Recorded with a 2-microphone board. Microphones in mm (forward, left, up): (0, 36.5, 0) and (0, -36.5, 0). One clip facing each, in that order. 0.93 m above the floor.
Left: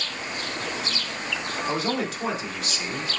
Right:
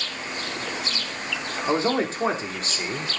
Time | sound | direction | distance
1.7 | a man speaking | 35° right (ahead or behind) | 2.5 m